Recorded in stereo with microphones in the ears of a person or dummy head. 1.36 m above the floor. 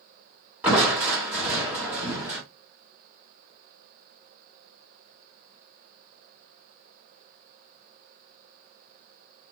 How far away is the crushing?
About 1.9 m.